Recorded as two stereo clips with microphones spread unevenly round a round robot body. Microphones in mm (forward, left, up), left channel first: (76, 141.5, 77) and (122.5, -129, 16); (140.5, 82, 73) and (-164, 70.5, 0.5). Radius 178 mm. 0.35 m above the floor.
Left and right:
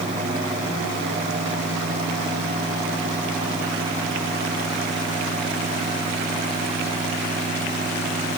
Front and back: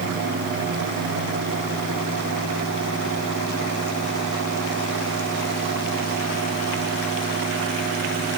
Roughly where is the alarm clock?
I don't hear an alarm clock.